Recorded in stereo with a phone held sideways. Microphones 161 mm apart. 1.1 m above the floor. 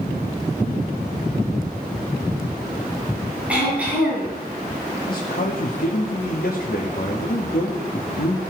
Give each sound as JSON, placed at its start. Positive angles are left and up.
{"t": 3.5, "sound": "throat clearing", "side_deg": -10, "distance_m": 7.5}
{"t": 5.1, "sound": "a man speaking", "side_deg": 70, "distance_m": 1.7}